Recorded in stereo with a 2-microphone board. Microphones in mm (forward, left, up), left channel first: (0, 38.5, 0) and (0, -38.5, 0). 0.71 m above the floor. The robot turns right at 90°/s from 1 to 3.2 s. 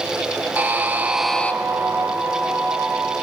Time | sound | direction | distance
0.6 | a buzzer | 25° right | 0.6 m